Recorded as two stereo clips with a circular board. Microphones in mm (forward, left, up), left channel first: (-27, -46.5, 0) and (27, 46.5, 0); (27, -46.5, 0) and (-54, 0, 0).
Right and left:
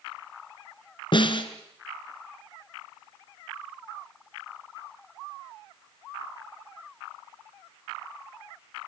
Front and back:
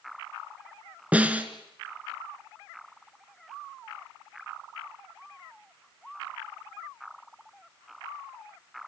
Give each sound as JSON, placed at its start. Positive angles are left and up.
{"t": 1.1, "sound": "a snare drum", "azimuth_deg": -140, "distance_m": 1.7}